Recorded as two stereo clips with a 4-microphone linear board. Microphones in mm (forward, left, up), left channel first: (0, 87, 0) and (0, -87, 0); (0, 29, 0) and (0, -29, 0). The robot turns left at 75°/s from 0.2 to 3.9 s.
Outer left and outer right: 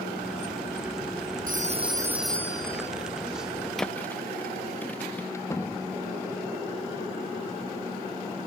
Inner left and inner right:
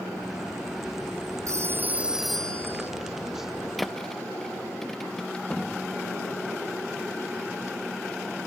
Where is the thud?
Centre (ahead or behind); by 5.2 s 10° left (ahead or behind).